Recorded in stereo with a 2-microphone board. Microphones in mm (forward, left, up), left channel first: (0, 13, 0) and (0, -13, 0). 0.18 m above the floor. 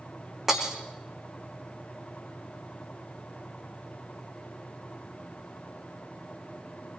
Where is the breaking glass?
15° right (ahead or behind), 3.5 m.